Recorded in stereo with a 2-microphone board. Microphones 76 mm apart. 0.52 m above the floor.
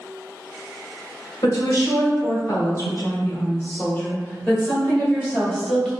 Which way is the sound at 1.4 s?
60° left (ahead or behind).